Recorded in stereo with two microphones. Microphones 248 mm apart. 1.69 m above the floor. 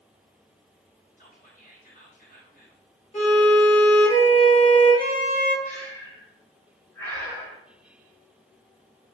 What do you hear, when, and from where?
1.2 s whispering: 35° left (ahead or behind), 1.2 m
3.1 s a violin: 30° left (ahead or behind), 1.6 m
5.7 s breathing: 10° left (ahead or behind), 1.2 m